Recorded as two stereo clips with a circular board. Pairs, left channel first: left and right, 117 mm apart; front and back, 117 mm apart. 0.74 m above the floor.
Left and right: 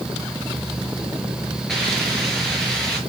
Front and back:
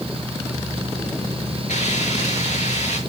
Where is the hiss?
5° left, 6 m.